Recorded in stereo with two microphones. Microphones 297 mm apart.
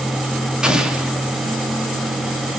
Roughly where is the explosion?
Centre.